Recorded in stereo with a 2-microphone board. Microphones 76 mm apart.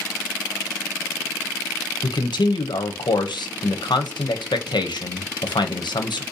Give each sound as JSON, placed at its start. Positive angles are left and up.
{"t": 2.0, "sound": "a man speaking", "side_deg": 85, "distance_m": 0.7}